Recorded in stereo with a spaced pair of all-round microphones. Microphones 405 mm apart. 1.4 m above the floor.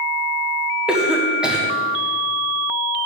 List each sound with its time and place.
0.9 s a cough: centre (ahead or behind), 1.1 m